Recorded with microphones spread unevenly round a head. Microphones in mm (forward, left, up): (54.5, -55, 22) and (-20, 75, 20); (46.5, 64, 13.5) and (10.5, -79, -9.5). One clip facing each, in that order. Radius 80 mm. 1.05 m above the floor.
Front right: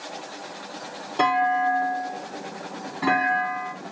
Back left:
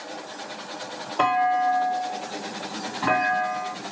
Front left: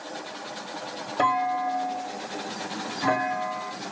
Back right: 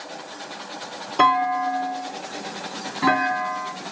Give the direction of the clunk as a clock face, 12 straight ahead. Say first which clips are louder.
Even, back right 5 dB; 4 o'clock.